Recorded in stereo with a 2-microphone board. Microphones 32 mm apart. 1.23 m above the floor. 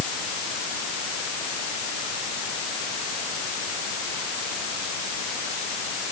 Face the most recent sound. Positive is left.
No sound to turn to.